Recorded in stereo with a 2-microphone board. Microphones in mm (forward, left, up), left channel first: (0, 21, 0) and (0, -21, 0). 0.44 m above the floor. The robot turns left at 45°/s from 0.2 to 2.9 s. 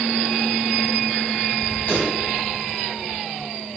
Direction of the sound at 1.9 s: 40° left (ahead or behind).